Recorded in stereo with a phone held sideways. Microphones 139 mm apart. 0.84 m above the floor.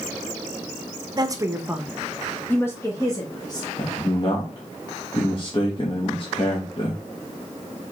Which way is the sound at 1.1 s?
30° right (ahead or behind).